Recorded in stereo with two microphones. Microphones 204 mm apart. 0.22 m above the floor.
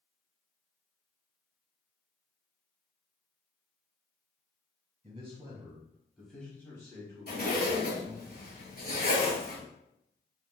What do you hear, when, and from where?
5.0 s a man speaking: 30° right (ahead or behind), 1.4 m; by 8.3 s 45° left (ahead or behind), 1.7 m
7.3 s a zipper: 50° left (ahead or behind), 1.4 m